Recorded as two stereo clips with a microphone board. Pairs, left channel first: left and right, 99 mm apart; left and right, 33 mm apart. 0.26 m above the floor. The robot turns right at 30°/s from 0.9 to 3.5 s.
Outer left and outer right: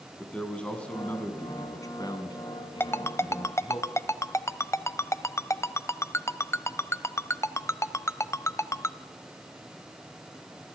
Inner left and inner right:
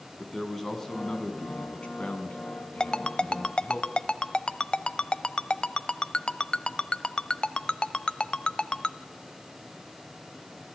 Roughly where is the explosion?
I don't hear an explosion.